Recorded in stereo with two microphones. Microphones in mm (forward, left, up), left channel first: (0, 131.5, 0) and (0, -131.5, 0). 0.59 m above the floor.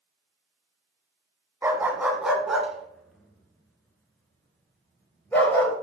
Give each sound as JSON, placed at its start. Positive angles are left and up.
{"t": 1.6, "sound": "a dog barking", "side_deg": -10, "distance_m": 1.3}